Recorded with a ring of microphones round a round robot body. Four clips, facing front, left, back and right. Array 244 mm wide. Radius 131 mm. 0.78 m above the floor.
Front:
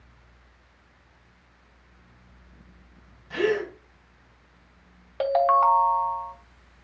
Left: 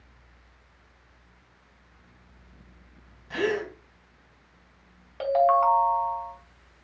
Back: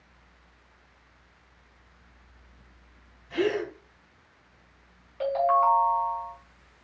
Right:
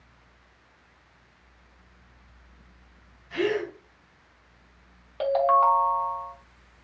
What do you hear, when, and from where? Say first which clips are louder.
3.3 s a gasp: right 1 dB, front 2 dB; 60° left, 1.9 m
5.2 s a ringtone: even, front 3 dB; 10° right, 0.7 m